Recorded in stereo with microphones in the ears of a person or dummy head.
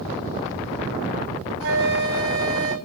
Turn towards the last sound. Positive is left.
turn(degrees=-60)  # may be behind; listen again after turning